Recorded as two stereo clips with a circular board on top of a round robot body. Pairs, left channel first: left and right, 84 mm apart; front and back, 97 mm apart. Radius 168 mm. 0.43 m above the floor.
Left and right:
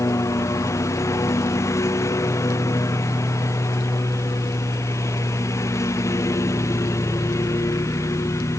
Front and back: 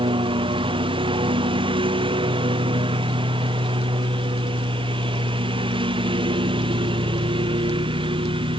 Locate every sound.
0.0 s a lawn mower: 150° left